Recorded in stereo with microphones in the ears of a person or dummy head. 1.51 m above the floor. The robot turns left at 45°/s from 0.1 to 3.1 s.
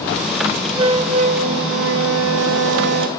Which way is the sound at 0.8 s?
25° right.